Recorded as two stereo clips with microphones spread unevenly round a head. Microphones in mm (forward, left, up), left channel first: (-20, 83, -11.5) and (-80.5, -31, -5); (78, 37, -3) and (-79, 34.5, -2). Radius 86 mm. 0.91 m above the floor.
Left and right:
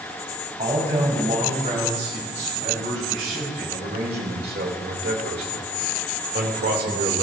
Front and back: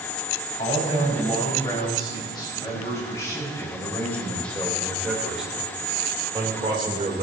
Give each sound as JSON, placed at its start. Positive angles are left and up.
{"t": 0.6, "sound": "a man speaking", "azimuth_deg": -60, "distance_m": 5.5}